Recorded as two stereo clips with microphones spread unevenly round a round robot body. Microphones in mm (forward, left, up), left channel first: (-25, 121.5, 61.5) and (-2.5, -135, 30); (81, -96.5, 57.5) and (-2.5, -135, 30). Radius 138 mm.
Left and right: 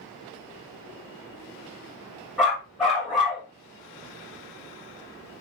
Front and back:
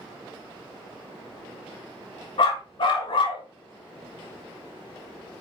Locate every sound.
2.4 s a dog barking: 5° left, 1.4 m